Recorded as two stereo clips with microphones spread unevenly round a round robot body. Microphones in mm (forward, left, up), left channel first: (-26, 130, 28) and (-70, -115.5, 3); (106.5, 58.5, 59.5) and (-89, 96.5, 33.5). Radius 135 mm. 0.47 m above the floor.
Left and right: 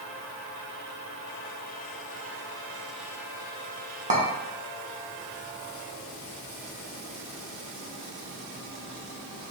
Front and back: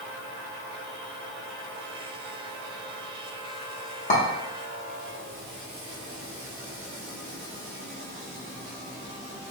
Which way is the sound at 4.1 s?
55° right.